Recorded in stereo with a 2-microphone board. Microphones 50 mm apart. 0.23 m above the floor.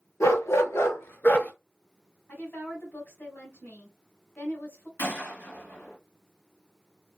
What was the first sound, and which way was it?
A dog barking, 80° left.